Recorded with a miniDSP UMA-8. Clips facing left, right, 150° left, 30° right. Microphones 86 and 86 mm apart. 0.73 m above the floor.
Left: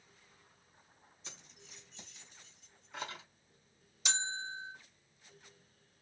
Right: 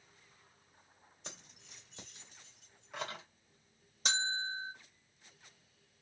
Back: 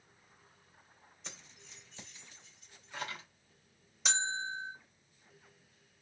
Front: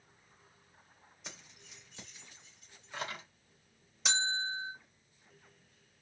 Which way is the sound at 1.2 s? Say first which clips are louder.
Right 3 dB, front 1 dB; 110° right.